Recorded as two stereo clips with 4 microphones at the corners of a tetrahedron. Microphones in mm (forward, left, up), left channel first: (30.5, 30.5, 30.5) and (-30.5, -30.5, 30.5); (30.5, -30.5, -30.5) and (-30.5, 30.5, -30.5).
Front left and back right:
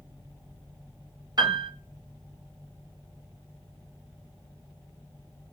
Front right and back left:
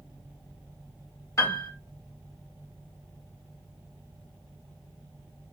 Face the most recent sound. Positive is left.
turn(degrees=-95)